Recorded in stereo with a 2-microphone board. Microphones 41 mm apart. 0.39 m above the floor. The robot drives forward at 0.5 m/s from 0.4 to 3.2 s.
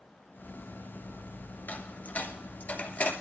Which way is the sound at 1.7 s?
50° left (ahead or behind).